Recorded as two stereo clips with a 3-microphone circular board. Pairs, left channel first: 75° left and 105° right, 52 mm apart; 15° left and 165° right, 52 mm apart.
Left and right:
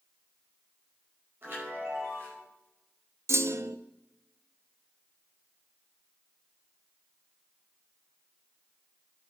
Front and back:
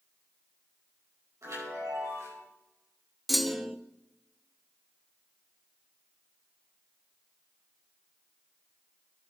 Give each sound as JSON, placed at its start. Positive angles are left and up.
{"t": 1.4, "sound": "a chime", "azimuth_deg": -150, "distance_m": 6.0}
{"t": 3.3, "sound": "a clunk", "azimuth_deg": -75, "distance_m": 0.6}